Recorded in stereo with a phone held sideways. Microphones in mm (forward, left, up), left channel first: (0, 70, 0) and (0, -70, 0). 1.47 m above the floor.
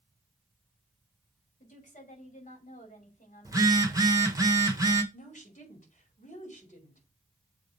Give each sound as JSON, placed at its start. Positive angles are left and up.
{"t": 1.6, "sound": "a woman speaking", "side_deg": 60, "distance_m": 5.0}
{"t": 3.5, "sound": "a phone buzzing", "side_deg": -25, "distance_m": 1.5}
{"t": 5.1, "sound": "a woman speaking", "side_deg": 60, "distance_m": 4.5}